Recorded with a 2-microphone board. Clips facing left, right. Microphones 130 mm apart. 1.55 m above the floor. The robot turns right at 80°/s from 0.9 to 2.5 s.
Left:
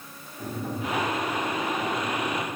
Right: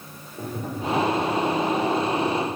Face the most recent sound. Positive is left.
turn(degrees=70)